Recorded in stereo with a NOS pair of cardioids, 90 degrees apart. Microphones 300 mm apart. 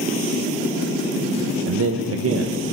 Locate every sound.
1.7 s a man speaking: 50° right, 1.1 m